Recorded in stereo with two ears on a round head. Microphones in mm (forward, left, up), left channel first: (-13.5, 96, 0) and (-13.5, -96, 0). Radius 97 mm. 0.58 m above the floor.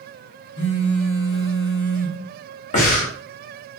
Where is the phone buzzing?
50° left (ahead or behind), 1.0 m.